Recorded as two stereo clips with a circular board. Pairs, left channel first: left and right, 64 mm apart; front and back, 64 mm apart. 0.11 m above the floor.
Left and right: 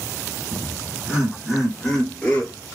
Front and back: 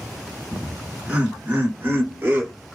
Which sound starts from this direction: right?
Laughter, at 0.5 s.